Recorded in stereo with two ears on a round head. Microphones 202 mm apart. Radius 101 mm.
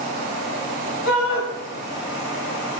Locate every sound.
1.1 s a shout: 75° left (ahead or behind), 4.5 m